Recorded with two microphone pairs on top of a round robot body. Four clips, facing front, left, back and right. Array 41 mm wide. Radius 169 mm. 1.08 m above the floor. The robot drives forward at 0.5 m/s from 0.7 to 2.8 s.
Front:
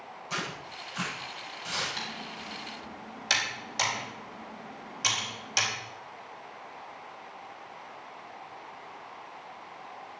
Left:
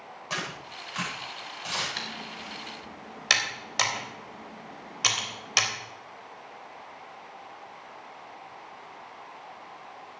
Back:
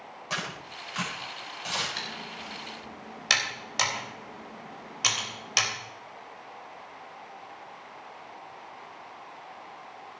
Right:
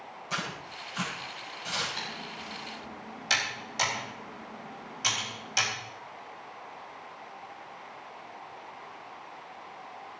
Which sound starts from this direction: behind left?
Tearing paper, at 0.3 s.